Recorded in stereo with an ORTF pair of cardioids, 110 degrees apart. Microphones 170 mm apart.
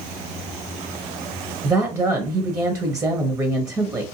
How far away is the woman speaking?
About 0.8 m.